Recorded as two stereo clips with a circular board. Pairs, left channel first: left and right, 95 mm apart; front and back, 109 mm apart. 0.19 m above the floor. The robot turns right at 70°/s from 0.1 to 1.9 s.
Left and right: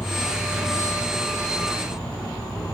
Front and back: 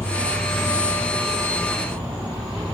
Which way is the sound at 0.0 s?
20° left.